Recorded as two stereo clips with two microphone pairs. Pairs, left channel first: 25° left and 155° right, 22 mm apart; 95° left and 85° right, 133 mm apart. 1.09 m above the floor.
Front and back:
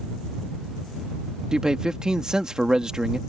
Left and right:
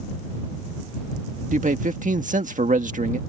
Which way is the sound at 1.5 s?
90° right.